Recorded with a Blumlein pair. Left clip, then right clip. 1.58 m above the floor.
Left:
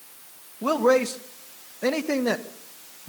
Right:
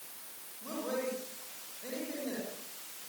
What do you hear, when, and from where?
0.6 s a man speaking: 50° left, 1.7 m